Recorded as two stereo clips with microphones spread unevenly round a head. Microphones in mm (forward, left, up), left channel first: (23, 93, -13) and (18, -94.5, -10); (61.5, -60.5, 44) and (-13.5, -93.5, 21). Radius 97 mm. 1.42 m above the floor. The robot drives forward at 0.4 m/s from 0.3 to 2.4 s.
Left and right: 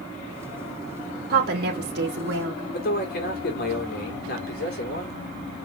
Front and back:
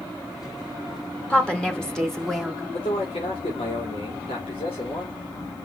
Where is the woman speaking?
55° right, 2 m; by 2.6 s 65° right, 2.0 m.